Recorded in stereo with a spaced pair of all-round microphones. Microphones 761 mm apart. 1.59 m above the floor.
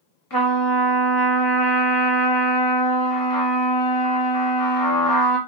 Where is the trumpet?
25° left (ahead or behind), 0.9 m.